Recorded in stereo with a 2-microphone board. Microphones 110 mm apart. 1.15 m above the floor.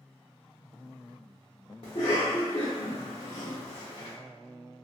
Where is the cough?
60° left (ahead or behind), 0.7 m.